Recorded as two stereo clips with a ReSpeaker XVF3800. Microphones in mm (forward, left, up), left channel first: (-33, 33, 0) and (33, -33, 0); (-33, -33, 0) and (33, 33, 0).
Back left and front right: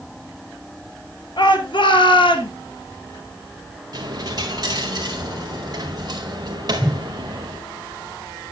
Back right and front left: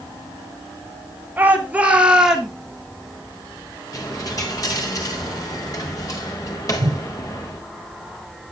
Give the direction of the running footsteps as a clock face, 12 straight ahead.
No running footsteps in this recording.